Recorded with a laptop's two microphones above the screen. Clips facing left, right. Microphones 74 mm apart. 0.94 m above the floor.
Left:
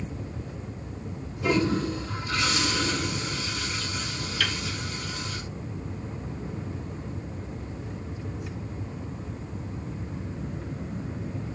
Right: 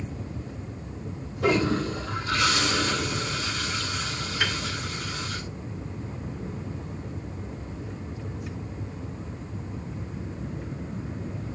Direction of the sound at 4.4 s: 30° right (ahead or behind).